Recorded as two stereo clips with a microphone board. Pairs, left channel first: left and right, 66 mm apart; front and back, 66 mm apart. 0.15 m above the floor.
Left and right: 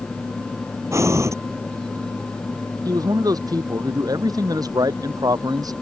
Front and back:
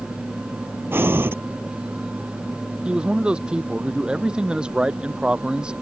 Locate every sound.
0.9 s breathing: 130° right
2.9 s a man speaking: 105° right